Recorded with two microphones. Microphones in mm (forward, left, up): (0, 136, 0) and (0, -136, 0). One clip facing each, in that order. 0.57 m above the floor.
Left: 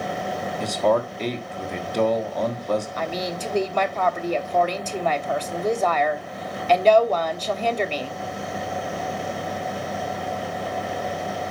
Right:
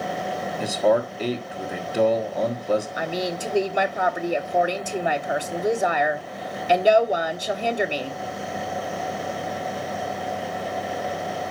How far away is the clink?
I don't hear a clink.